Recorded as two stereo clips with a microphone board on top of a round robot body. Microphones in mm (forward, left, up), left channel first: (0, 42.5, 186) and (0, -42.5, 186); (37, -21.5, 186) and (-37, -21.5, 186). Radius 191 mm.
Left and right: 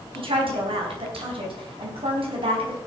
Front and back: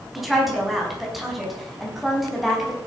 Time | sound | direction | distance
0.1 | a woman speaking | 90° right | 4.5 m